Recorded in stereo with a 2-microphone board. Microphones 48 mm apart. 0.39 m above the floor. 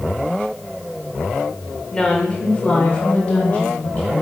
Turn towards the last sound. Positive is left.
turn(degrees=30)  # may be behind; listen again after turning